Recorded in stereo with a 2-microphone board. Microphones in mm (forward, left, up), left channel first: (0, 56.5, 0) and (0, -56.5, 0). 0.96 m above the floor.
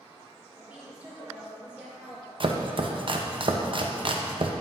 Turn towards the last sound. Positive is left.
turn(degrees=-50)  # may be behind; listen again after turning